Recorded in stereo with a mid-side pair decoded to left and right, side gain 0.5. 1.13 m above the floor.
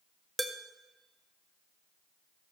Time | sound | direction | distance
0.4 | dishes clattering | 15° right | 1.1 m